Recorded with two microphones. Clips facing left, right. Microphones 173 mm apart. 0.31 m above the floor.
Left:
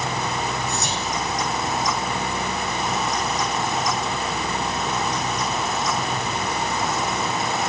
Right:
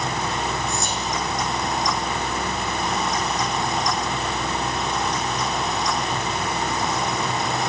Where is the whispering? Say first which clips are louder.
Even; 70° left (ahead or behind), 4.5 m.